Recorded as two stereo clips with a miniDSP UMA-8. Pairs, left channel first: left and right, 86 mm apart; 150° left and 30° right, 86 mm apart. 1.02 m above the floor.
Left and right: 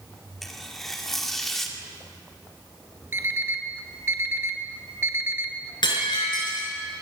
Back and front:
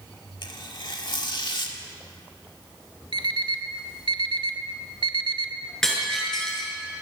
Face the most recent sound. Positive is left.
turn(degrees=65)